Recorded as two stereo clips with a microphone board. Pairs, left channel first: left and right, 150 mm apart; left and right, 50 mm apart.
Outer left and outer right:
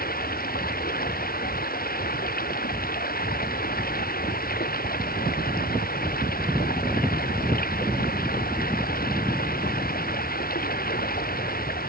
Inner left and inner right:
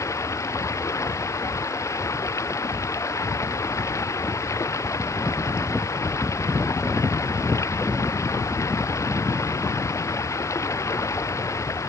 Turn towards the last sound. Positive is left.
turn(degrees=85)